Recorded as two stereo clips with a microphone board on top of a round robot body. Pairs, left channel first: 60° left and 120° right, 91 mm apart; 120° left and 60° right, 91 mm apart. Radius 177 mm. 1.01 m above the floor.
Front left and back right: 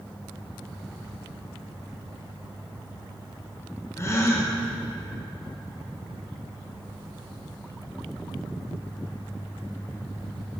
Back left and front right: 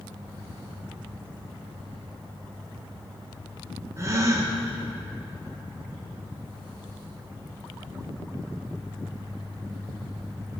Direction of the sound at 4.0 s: Straight ahead.